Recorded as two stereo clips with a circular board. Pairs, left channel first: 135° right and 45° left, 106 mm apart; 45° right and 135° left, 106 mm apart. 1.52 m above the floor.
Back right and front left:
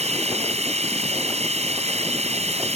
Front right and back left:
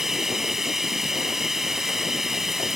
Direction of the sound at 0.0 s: 45° left.